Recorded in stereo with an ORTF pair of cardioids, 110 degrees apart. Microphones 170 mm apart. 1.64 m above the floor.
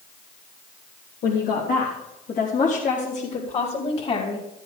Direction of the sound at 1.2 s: 70° left.